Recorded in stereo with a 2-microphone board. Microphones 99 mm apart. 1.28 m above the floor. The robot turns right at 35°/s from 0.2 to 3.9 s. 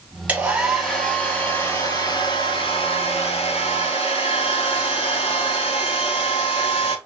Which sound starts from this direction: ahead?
A hair dryer, at 0.3 s.